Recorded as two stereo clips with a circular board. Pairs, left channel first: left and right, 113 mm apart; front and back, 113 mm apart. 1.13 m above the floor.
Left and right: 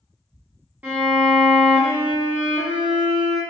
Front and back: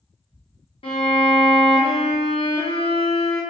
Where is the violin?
15° right, 0.9 m.